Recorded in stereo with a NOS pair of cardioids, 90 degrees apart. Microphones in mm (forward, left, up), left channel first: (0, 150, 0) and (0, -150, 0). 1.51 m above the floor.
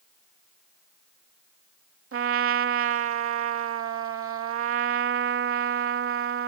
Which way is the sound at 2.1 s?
45° right.